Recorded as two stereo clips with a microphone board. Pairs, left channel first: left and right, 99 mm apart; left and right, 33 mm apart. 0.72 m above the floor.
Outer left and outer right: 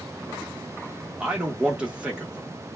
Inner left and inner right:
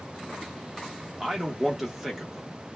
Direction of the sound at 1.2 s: 10° right (ahead or behind).